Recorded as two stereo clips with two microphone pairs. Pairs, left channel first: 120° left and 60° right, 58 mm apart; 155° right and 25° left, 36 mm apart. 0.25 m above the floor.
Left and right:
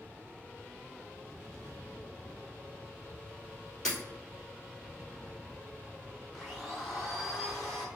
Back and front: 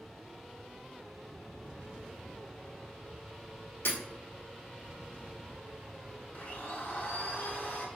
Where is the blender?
145° right, 2 m.